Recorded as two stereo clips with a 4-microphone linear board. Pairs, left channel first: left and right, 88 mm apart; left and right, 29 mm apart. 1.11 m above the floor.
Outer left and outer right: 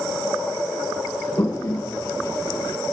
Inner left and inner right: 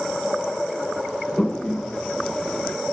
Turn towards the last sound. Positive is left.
turn(degrees=40)  # may be behind; listen again after turning